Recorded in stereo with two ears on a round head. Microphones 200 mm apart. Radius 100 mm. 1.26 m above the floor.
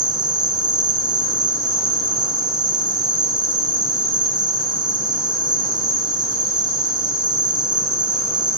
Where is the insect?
20° right (ahead or behind), 1.0 m.